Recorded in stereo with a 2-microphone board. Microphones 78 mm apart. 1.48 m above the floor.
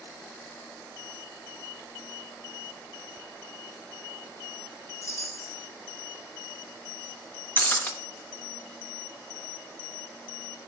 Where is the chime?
35° left (ahead or behind), 1.3 m.